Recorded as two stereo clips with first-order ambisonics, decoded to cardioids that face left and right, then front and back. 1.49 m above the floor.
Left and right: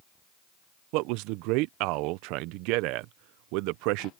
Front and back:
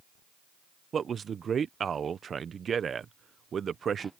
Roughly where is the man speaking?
Right.